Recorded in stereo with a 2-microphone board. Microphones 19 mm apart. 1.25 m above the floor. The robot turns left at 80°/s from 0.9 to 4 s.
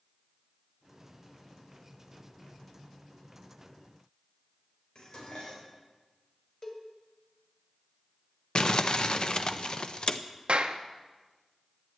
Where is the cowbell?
30° left (ahead or behind), 2 m.